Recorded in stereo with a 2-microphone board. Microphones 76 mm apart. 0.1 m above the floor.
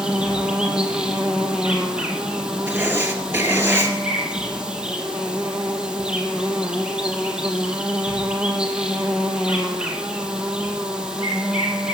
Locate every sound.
0.0 s an insect: 10° right (ahead or behind), 2.5 m
2.7 s writing: 30° right (ahead or behind), 2.5 m